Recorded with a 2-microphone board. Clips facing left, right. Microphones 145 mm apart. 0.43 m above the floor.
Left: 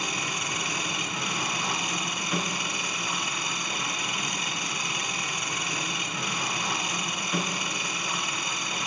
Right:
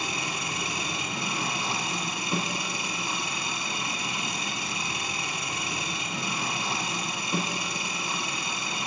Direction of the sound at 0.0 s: 30° right (ahead or behind).